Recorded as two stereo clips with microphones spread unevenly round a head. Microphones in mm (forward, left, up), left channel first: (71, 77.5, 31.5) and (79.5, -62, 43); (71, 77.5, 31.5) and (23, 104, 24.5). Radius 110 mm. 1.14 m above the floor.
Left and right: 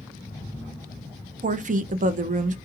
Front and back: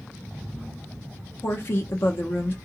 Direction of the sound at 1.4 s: 80° right.